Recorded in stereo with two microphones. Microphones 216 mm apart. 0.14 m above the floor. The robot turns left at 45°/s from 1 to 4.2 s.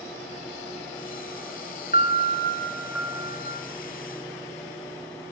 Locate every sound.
1.9 s a piano: 45° left, 0.9 m; by 3.6 s 30° right, 0.9 m